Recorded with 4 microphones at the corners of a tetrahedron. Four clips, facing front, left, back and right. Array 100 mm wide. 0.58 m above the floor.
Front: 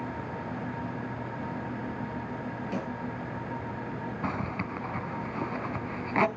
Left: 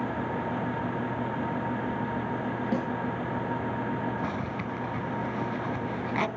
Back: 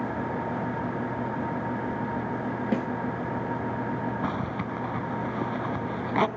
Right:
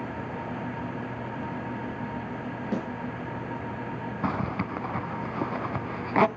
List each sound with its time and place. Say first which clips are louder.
2.7 s a snare drum: even, back 7 dB; straight behind, 5 m
4.2 s a zipper: right 3 dB, back 3 dB; 115° right, 0.7 m